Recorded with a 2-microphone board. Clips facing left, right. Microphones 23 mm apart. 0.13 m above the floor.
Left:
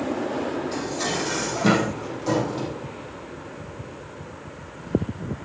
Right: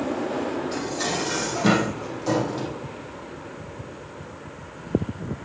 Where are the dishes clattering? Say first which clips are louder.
Even; 10° right (ahead or behind), 3.5 m.